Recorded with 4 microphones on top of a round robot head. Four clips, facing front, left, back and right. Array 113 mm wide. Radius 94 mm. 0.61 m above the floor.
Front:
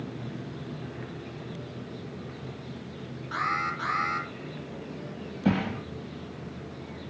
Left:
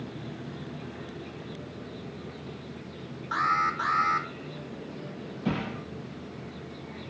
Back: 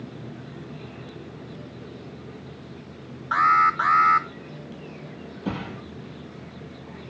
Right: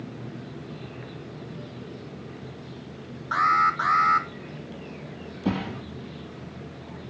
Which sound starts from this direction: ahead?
A thud, at 5.5 s.